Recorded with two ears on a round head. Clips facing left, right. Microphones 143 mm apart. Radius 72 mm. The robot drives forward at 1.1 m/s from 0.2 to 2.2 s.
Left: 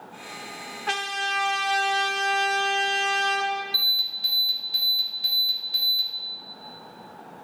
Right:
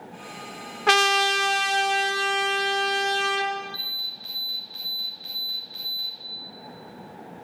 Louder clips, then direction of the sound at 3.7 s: Left 2 dB; 55° left (ahead or behind).